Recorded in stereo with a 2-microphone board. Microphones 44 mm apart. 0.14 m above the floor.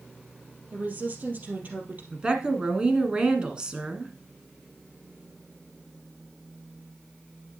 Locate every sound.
0.7 s a woman speaking: 40° right (ahead or behind), 3 m
2.1 s a woman speaking: 20° right (ahead or behind), 1.5 m